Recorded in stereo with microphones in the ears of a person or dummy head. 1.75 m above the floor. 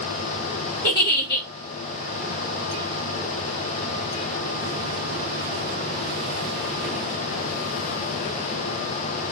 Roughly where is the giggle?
Centre.